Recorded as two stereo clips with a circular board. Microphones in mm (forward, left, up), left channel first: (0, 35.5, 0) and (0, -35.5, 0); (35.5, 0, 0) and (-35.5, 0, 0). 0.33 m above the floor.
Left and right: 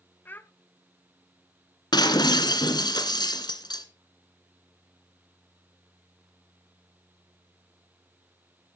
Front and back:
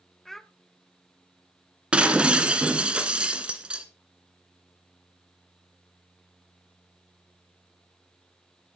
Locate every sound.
0.2 s a child speaking: 85° left, 0.7 m
1.9 s breaking glass: 105° left, 1.7 m